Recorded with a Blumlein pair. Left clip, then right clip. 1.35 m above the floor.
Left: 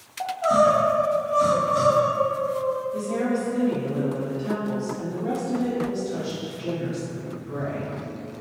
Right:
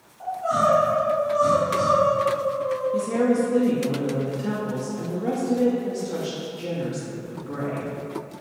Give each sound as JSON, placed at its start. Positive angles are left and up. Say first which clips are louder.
{"t": 0.2, "sound": "crying", "louder": "left 3 dB", "azimuth_deg": 35, "distance_m": 0.7}
{"t": 2.9, "sound": "a woman speaking", "louder": "right 4 dB", "azimuth_deg": -25, "distance_m": 0.7}